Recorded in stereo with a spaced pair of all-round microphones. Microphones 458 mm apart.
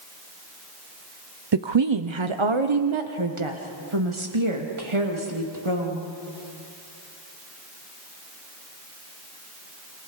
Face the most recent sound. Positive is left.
turn(degrees=-80)